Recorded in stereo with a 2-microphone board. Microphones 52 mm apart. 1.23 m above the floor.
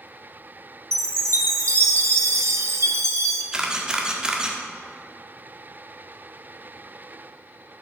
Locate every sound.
0.9 s a chime: 75° right (ahead or behind), 1.0 m
3.5 s a camera shutter: 15° right (ahead or behind), 1.5 m